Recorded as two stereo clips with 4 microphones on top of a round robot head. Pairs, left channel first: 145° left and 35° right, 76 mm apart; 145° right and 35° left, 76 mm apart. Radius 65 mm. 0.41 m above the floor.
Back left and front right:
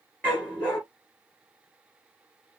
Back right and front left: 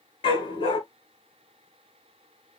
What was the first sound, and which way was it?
A dog barking, 145° right.